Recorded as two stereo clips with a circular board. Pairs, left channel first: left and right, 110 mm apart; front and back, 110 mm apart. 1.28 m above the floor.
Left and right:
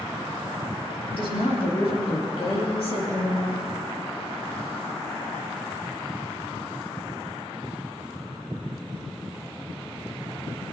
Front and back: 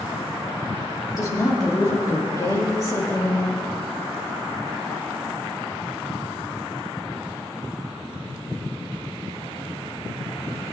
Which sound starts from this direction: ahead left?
A woman speaking, at 1.2 s.